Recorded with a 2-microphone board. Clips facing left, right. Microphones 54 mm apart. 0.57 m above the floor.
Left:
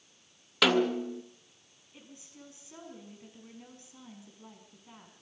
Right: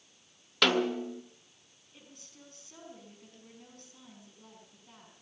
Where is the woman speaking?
15° left (ahead or behind), 5.5 m.